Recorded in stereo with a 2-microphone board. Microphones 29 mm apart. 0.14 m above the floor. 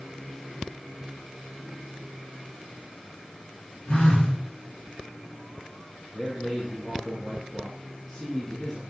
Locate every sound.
3.9 s a phone buzzing: 65° left (ahead or behind), 3 m
6.1 s a man speaking: 20° left (ahead or behind), 2.5 m